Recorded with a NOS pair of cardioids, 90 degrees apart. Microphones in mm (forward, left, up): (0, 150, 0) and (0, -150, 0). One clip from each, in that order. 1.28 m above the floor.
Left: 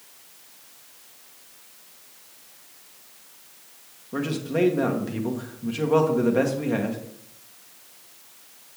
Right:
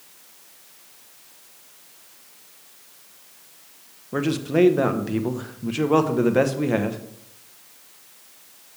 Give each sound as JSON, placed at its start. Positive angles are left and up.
{"t": 4.1, "sound": "a man speaking", "azimuth_deg": -25, "distance_m": 1.1}